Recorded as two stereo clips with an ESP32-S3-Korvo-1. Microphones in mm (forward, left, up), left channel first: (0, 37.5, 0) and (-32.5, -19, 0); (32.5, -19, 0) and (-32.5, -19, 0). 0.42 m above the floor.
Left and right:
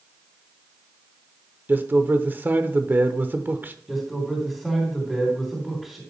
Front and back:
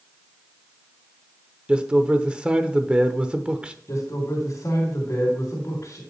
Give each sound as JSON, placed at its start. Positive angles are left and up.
{"t": 1.7, "sound": "a man speaking", "azimuth_deg": -125, "distance_m": 1.0}
{"t": 3.9, "sound": "a man speaking", "azimuth_deg": -35, "distance_m": 3.0}